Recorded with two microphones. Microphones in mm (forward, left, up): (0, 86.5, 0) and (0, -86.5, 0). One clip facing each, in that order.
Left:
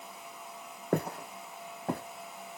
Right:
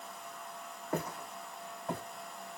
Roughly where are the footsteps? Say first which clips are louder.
Left 6 dB; left.